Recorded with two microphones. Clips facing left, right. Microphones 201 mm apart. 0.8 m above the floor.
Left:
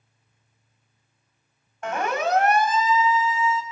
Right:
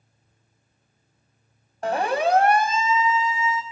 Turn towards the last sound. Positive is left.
turn(degrees=-20)  # may be behind; listen again after turning